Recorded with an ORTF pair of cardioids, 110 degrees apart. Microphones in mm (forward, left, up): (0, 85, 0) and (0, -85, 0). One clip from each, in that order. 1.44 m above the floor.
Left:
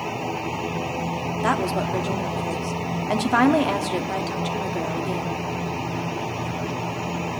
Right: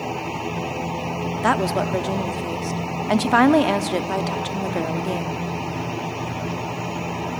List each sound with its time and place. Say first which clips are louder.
1.4 s a woman speaking: right 3 dB; 20° right, 1.0 m